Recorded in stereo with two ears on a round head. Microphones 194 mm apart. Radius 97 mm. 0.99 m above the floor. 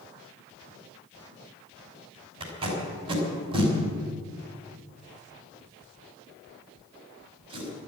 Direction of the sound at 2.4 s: 25° right (ahead or behind).